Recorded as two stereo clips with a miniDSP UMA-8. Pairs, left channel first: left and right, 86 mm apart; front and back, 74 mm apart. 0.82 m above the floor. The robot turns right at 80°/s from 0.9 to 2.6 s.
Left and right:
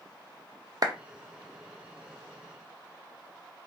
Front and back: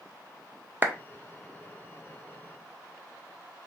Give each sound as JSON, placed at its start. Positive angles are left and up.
{"t": 0.8, "sound": "a clap", "azimuth_deg": -120, "distance_m": 0.5}